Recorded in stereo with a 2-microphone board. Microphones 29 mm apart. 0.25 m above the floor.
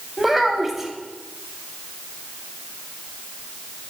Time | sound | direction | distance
0.2 | a child speaking | 10° right (ahead or behind) | 0.7 m